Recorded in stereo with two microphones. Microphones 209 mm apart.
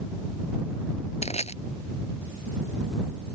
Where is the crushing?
30° left (ahead or behind).